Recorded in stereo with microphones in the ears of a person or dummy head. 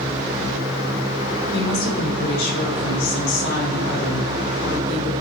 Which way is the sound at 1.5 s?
65° left (ahead or behind).